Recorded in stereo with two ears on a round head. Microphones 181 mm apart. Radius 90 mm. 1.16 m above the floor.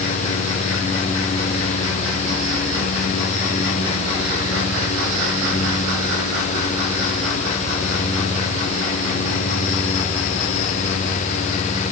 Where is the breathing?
I don't hear breathing.